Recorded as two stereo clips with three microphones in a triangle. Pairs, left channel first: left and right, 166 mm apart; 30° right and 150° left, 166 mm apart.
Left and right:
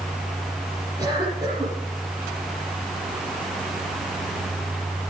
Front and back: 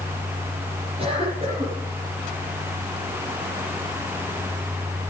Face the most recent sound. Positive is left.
turn(degrees=-160)